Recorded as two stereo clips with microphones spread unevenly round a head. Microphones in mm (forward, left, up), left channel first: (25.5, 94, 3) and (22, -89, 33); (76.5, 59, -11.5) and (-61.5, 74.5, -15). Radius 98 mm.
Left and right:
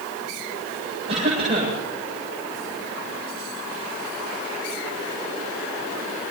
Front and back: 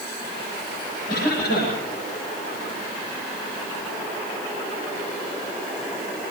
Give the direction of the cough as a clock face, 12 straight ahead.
1 o'clock.